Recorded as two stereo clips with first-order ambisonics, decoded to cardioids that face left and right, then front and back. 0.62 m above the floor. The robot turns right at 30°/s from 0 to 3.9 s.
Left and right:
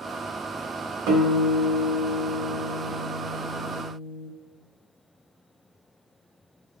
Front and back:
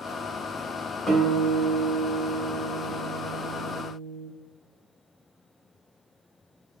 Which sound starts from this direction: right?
A guitar, at 1.1 s.